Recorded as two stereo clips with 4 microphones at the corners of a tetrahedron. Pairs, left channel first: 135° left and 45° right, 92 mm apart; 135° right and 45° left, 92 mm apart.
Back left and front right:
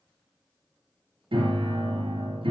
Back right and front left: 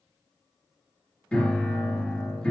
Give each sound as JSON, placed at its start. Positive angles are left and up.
{"t": 1.3, "sound": "a piano", "azimuth_deg": -60, "distance_m": 1.7}